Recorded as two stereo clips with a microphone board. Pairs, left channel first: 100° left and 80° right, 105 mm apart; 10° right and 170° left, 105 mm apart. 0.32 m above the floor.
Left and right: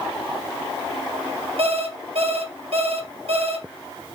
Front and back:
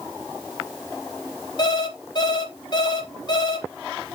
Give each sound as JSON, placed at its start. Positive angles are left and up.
{"t": 1.6, "sound": "an alarm clock", "azimuth_deg": -60, "distance_m": 3.0}